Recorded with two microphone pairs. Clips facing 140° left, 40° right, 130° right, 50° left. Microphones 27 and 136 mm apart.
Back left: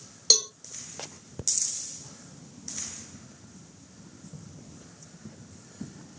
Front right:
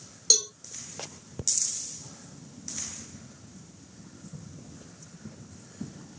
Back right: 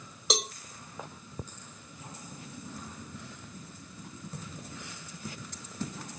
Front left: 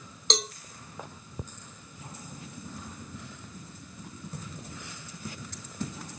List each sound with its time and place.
0.3 s a cowbell: 155° left, 0.8 m